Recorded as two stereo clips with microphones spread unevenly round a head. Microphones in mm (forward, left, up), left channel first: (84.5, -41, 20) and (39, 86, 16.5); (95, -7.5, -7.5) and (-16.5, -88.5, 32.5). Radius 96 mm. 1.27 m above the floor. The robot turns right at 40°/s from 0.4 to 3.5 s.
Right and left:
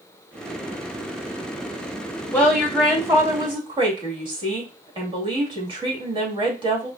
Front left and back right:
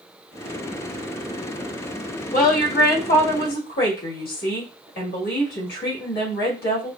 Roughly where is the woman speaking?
Ahead.